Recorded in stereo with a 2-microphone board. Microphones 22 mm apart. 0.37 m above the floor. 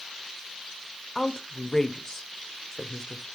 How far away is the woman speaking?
About 1.2 m.